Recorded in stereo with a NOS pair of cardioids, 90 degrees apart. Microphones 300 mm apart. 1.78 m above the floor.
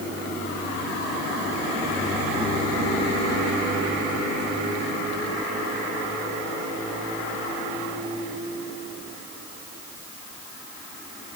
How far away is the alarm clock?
I don't hear an alarm clock.